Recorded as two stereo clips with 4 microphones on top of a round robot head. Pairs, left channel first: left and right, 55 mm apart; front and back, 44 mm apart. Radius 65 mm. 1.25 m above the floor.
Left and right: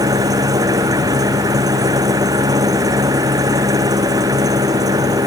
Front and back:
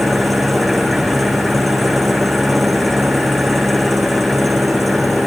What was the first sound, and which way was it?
An engine running, 90° right.